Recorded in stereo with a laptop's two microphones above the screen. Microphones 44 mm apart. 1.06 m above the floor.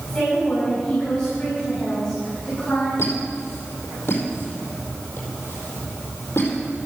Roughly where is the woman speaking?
Centre.